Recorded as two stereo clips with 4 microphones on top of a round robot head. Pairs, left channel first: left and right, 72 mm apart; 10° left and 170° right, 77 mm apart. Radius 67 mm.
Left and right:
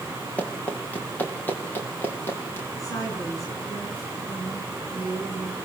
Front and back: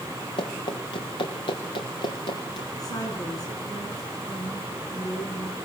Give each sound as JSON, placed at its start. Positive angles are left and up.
{"t": 0.4, "sound": "running footsteps", "azimuth_deg": 20, "distance_m": 5.5}
{"t": 2.8, "sound": "a woman speaking", "azimuth_deg": 50, "distance_m": 8.0}